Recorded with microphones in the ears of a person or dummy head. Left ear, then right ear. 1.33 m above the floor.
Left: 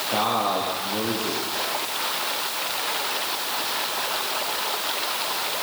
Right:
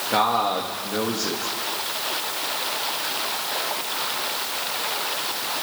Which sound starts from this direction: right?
A man speaking, at 0.1 s.